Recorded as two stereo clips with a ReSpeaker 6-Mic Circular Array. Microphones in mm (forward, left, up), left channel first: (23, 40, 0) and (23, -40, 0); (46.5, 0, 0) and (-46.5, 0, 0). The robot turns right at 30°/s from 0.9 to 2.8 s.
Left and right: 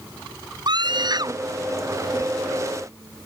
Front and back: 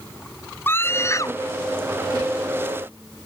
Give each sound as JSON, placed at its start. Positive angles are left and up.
{"t": 0.7, "sound": "a scream", "azimuth_deg": -65}